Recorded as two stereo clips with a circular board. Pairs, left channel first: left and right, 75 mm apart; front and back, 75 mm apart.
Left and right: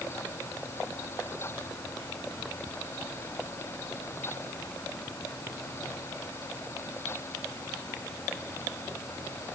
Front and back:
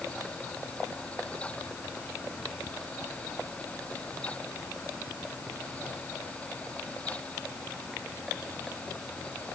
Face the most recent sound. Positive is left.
No sound to turn to.